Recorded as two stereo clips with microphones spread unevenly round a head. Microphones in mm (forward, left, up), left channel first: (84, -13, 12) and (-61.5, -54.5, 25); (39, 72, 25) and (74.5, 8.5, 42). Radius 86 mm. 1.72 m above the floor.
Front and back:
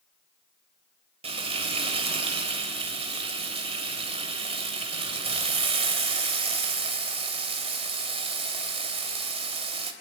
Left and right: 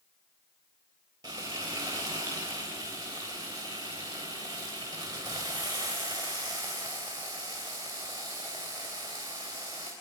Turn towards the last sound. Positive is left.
turn(degrees=-120)